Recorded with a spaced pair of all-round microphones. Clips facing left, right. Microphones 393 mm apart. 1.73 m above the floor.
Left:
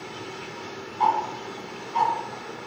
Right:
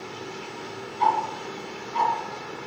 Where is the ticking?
5° left (ahead or behind), 1.4 m.